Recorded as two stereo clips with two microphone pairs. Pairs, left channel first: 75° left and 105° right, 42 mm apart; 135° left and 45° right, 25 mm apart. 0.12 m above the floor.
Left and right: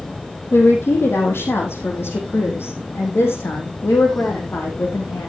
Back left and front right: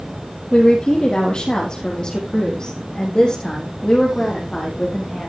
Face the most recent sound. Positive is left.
turn(degrees=65)